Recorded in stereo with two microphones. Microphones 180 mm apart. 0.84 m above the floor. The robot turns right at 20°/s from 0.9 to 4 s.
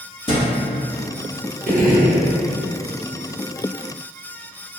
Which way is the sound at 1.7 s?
50° right (ahead or behind).